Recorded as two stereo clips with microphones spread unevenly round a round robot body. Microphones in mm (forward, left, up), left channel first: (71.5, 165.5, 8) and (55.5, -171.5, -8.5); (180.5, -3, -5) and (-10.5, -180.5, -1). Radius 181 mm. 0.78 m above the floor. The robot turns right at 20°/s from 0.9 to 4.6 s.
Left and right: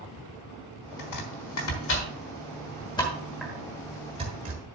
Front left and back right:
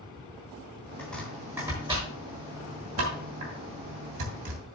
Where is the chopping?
125° left, 1.3 m; by 4.6 s 160° right, 1.3 m.